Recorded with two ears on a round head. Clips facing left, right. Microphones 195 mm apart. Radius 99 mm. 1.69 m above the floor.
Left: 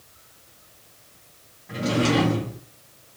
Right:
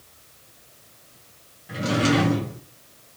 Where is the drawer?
5° right (ahead or behind), 1.0 m.